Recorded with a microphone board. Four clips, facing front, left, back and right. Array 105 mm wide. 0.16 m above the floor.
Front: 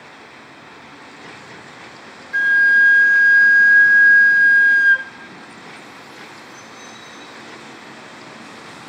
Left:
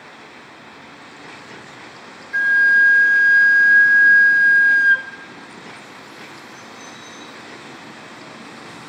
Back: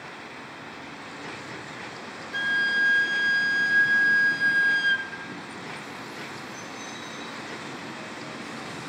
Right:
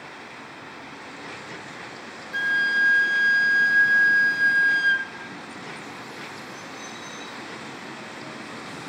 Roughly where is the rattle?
I don't hear a rattle.